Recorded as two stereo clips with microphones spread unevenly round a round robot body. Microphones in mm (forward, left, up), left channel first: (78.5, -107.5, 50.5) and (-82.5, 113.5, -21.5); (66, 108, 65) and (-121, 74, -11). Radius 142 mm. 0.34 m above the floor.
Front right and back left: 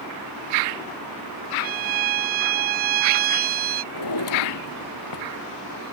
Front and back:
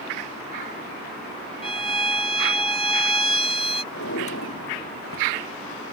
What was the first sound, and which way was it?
A violin, 85° left.